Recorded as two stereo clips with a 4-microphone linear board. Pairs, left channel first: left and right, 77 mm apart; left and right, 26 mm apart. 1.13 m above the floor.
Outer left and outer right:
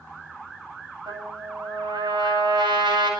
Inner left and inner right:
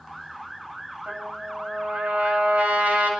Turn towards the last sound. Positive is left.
turn(degrees=-75)  # may be behind; listen again after turning